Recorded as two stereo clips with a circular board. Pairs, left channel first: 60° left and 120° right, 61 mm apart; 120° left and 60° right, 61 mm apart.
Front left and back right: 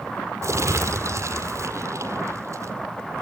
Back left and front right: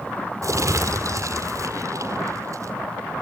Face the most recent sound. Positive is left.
turn(degrees=-85)